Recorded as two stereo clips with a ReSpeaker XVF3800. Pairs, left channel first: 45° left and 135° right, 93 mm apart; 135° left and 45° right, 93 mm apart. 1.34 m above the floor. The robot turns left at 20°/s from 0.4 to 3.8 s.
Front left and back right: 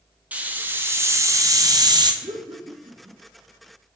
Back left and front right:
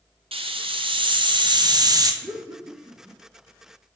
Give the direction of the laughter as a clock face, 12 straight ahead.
4 o'clock.